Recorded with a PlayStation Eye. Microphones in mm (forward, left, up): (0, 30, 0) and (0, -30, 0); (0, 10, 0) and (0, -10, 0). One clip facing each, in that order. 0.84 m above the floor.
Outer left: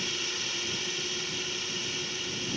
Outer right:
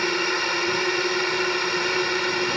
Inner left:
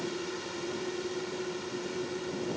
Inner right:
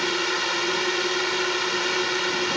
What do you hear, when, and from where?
0.0 s a drone: 60° right (ahead or behind); by 2.6 s 65° right (ahead or behind)